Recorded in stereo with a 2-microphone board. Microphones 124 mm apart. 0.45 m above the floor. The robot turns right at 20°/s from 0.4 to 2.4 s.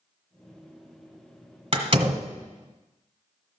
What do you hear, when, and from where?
1.7 s a door slam: 50° right (ahead or behind), 1.6 m; by 2.3 s 40° right (ahead or behind), 1.6 m